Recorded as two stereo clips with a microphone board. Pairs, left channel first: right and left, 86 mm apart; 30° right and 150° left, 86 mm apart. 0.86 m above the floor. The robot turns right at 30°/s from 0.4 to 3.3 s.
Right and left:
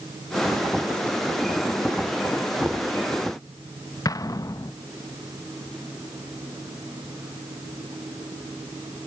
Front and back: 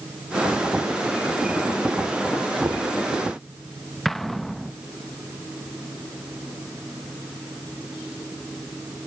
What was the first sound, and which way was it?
Knocking, 160° left.